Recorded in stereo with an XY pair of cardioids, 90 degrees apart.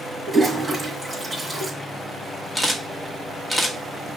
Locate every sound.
0.3 s a toilet flushing: 25° right, 3 m
2.5 s a camera shutter: 15° left, 1.3 m